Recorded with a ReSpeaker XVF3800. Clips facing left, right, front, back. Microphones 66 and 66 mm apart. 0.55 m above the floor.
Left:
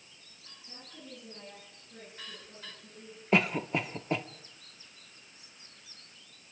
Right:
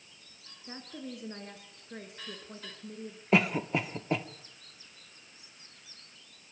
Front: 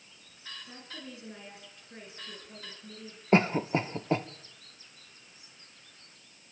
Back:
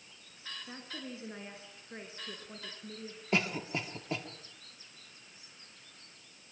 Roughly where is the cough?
Ahead.